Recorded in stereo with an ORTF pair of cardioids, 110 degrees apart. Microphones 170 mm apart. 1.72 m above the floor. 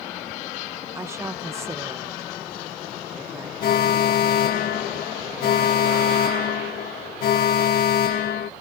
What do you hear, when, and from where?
0.9 s a woman speaking: 15° right
3.6 s an alarm: 60° left